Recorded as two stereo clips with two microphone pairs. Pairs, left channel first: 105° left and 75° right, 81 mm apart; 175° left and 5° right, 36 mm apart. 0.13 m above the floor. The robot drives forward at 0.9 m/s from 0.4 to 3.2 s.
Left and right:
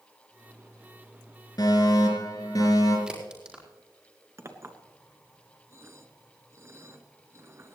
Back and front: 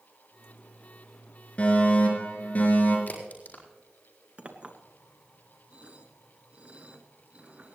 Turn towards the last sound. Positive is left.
turn(degrees=-40)